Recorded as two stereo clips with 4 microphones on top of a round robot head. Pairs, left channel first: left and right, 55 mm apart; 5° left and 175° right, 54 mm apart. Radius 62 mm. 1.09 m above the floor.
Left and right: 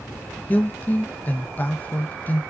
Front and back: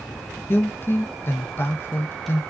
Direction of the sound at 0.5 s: 40° left.